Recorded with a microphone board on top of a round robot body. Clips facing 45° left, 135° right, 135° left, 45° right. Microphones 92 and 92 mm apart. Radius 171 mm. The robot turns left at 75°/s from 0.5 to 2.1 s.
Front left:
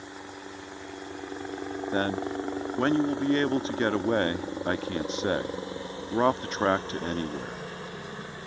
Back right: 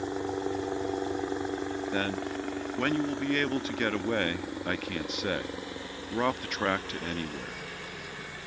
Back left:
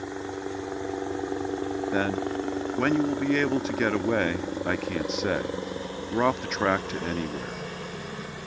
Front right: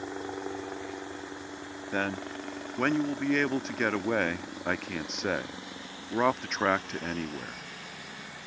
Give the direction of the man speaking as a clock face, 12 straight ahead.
10 o'clock.